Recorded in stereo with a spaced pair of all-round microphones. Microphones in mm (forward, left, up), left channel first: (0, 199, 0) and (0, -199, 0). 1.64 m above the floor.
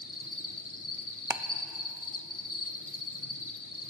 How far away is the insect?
About 1.0 m.